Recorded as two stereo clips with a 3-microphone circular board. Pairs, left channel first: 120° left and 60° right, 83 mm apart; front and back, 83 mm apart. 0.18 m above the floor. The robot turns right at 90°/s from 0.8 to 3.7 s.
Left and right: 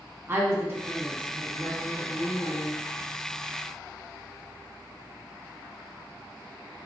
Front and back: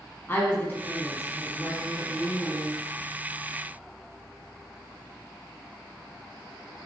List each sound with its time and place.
0.3 s a woman speaking: 40° right, 1.2 m; by 2.8 s 145° left, 1.2 m